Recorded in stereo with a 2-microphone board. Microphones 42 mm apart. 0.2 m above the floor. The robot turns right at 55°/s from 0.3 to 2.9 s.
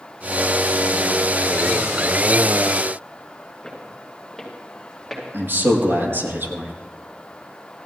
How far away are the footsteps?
About 8 m.